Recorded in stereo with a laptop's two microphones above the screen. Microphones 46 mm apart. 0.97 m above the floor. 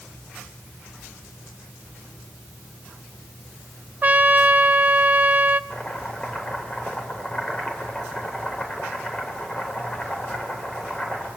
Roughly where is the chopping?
Left.